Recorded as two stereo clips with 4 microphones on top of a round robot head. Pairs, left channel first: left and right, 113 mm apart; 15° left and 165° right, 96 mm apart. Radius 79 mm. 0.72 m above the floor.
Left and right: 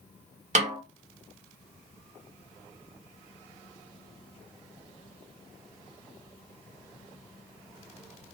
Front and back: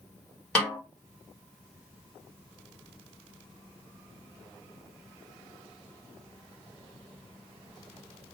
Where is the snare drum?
70° right, 1.4 m.